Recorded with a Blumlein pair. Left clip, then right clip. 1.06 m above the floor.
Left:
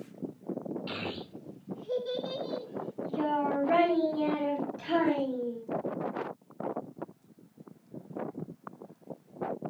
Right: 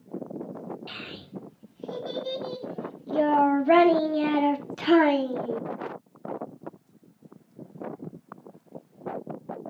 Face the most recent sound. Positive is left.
turn(degrees=-55)